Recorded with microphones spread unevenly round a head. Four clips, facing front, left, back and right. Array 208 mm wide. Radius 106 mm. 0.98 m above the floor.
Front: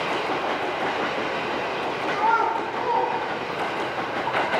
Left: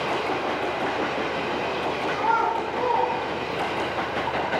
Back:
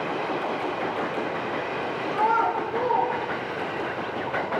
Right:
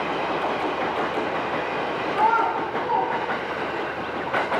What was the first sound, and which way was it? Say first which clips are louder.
A child speaking: right 3 dB, even; 175° right.